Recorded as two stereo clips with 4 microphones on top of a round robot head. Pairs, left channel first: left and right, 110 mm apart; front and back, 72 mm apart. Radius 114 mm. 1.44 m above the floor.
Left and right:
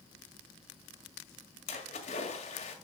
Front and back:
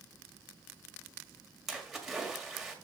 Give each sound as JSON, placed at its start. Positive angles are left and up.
{"t": 1.7, "sound": "a splash", "azimuth_deg": 95, "distance_m": 1.7}